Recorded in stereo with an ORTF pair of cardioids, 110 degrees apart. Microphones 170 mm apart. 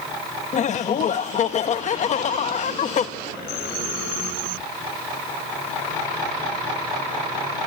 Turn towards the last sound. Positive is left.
turn(degrees=45)